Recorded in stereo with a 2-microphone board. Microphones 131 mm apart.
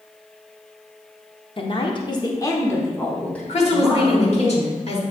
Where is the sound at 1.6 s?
45° left (ahead or behind), 0.9 m; by 4.5 s centre (ahead or behind), 2 m.